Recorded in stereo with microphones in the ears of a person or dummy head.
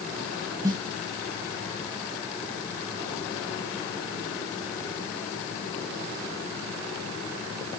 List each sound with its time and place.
0.6 s a snare drum: 25° right (ahead or behind), 0.5 m